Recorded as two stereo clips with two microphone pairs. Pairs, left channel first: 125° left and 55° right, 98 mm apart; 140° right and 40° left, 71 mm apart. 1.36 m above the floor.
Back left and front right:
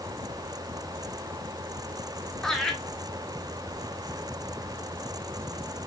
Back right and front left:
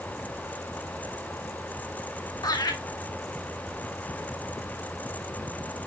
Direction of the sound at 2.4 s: 150° right.